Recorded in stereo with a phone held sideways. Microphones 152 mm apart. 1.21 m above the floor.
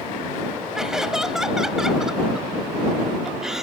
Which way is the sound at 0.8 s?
5° right (ahead or behind).